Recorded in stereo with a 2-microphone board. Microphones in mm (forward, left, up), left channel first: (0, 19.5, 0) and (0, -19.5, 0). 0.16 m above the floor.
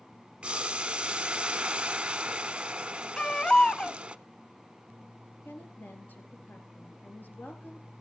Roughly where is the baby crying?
Left.